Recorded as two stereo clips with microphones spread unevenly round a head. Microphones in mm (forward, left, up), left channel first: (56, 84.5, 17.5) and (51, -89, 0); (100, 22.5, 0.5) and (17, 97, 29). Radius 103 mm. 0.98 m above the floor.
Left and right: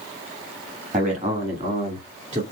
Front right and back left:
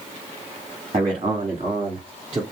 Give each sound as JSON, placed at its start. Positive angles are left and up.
{"t": 0.9, "sound": "a man speaking", "azimuth_deg": -150, "distance_m": 1.5}